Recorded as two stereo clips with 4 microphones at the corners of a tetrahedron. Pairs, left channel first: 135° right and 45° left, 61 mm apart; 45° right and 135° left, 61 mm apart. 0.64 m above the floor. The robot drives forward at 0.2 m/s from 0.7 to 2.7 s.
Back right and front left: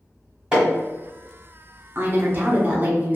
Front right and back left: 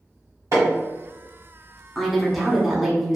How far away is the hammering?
About 1.2 m.